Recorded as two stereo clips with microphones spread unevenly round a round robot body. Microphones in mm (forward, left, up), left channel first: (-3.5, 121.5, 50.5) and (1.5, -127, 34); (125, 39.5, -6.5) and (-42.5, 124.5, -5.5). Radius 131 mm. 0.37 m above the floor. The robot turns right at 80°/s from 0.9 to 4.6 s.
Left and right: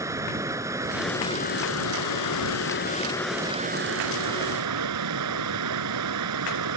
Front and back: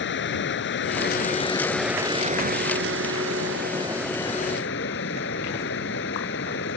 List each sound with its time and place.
0.0 s running water: 10° right; by 6.8 s 75° right